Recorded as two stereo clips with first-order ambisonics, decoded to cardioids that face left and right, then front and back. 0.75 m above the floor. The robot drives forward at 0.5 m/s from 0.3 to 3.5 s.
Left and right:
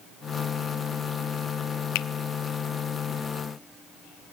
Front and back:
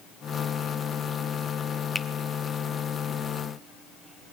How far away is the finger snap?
About 0.7 m.